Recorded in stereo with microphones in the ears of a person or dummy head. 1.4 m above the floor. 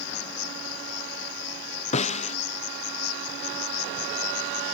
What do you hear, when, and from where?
0.0 s an insect: 85° left
1.9 s a snare drum: 35° left (ahead or behind)